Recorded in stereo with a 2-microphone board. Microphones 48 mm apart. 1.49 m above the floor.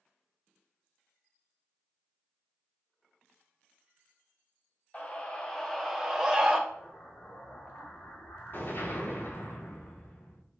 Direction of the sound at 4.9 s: 30° left (ahead or behind).